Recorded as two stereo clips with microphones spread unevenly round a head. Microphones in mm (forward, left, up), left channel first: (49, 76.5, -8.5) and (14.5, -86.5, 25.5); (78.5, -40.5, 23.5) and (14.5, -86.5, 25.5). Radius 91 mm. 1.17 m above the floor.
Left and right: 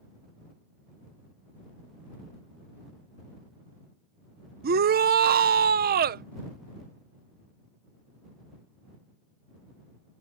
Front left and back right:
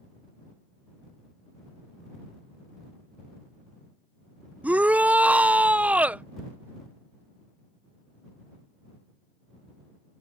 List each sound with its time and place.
4.6 s a shout: 75° right